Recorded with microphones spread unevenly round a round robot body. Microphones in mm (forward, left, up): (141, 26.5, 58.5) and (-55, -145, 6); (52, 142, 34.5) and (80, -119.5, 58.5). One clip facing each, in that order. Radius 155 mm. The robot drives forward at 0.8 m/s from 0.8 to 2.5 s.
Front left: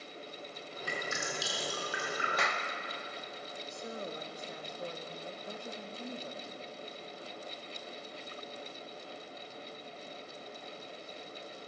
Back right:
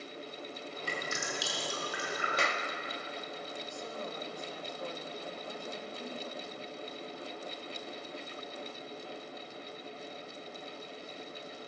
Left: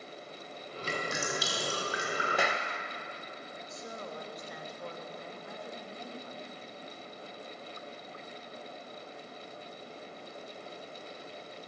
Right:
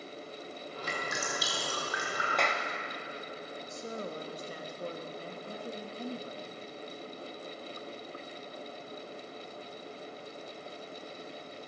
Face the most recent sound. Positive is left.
turn(degrees=-30)